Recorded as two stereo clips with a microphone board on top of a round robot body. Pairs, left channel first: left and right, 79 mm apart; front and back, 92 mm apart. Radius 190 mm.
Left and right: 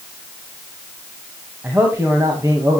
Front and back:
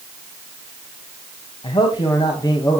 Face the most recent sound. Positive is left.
turn(degrees=-50)